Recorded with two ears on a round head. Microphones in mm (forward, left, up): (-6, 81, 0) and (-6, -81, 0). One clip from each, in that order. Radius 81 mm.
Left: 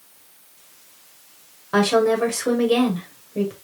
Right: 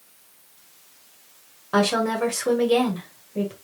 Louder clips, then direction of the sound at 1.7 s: Left 4 dB; centre (ahead or behind).